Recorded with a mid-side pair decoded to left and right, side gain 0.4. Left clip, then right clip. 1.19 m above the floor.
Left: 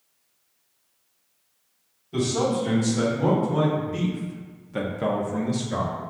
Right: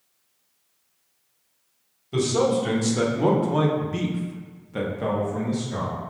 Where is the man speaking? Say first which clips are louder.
Right 3 dB; 70° right, 1.6 m; by 5.9 s 55° left, 1.1 m.